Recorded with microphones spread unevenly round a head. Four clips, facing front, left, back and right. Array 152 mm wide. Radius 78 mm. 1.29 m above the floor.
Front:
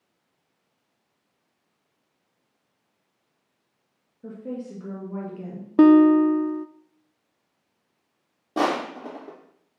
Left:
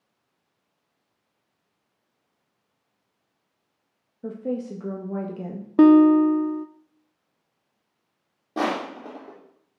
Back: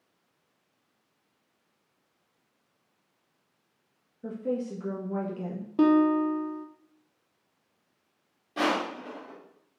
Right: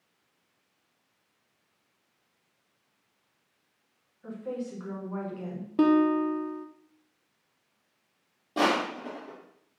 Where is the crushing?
20° left, 2.5 m.